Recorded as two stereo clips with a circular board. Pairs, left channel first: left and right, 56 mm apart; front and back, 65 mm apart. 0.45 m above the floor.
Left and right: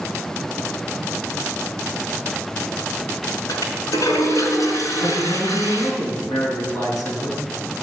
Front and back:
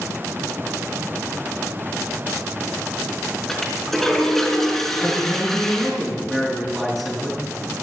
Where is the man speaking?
90° left, 5 m.